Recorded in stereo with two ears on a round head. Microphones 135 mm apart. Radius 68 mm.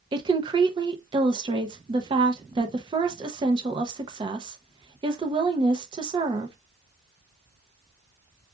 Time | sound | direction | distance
0.1 | a woman speaking | 30° right (ahead or behind) | 0.6 m